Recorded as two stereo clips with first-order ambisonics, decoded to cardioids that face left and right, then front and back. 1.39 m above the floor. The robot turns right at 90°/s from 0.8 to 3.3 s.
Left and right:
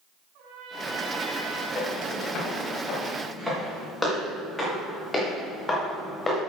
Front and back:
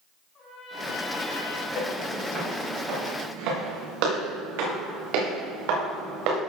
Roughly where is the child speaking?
I don't hear a child speaking.